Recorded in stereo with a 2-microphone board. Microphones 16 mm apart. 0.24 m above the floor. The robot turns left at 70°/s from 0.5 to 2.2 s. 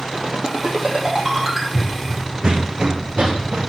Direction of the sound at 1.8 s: 15° left (ahead or behind).